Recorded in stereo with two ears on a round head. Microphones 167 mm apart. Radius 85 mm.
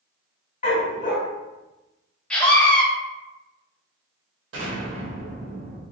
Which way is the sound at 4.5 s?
65° right (ahead or behind).